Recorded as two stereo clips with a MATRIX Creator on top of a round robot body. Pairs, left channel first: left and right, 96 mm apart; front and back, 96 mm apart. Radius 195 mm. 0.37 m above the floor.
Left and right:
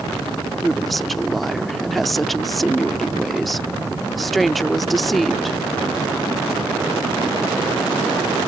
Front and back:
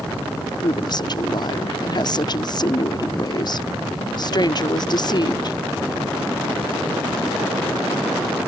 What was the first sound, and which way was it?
A woman speaking, straight ahead.